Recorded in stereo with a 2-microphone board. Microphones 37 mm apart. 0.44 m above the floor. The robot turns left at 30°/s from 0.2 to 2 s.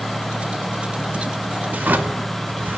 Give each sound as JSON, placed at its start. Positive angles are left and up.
{"t": 1.7, "sound": "a drawer", "side_deg": -50, "distance_m": 0.8}